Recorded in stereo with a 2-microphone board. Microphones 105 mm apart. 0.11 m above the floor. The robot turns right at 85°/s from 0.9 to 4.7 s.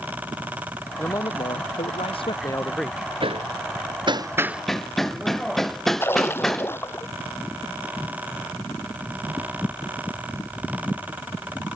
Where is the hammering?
55° right (ahead or behind); by 6.7 s 5° left (ahead or behind).